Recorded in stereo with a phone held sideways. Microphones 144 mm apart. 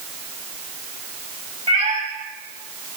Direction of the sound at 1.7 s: 40° right (ahead or behind).